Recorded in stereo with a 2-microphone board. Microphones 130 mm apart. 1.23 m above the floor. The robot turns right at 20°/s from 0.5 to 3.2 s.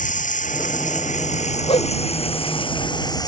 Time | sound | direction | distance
0.0 | running water | 95° left | ?
1.7 | a whoosh | 45° left (ahead or behind) | ?